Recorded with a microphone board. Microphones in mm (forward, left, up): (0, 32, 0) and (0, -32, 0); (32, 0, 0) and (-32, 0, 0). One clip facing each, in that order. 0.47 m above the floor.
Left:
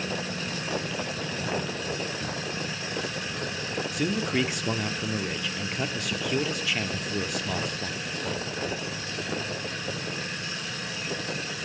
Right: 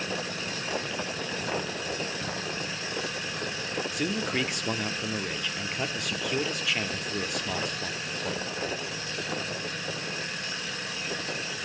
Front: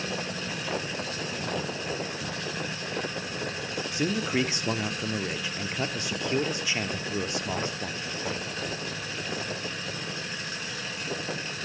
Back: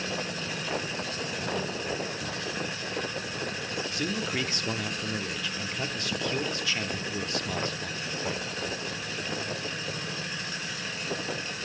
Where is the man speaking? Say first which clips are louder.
Left 3 dB, front 6 dB; straight ahead, 0.7 m.